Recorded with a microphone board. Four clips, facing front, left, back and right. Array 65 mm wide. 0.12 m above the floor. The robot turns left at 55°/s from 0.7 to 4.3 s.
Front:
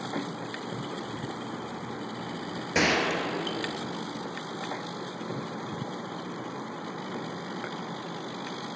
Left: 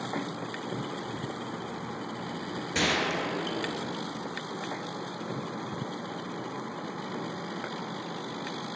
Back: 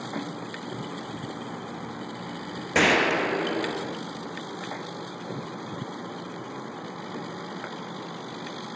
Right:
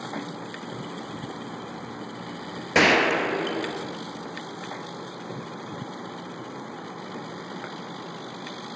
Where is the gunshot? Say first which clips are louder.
Right 9 dB, back 5 dB; 100° right, 0.6 m; by 4.0 s 170° right, 0.6 m.